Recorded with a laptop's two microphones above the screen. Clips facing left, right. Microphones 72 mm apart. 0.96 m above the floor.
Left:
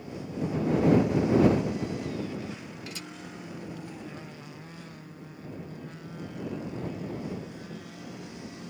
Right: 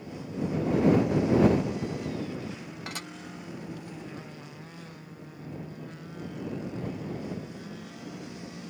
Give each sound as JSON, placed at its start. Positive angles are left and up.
{"t": 2.9, "sound": "dishes clattering", "side_deg": -55}